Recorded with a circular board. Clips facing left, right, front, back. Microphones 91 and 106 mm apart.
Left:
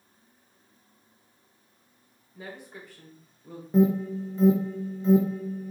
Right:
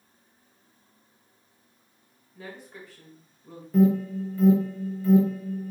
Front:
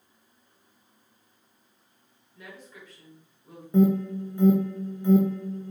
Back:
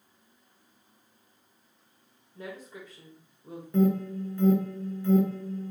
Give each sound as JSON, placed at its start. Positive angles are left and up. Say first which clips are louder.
{"t": 2.4, "sound": "a woman speaking", "louder": "even, back 5 dB", "azimuth_deg": 155, "distance_m": 1.4}
{"t": 3.7, "sound": "an alarm", "louder": "right 1 dB, front 3 dB", "azimuth_deg": 55, "distance_m": 0.8}